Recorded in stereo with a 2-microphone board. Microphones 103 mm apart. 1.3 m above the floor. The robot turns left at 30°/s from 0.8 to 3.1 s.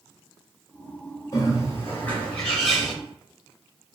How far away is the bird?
About 1.0 m.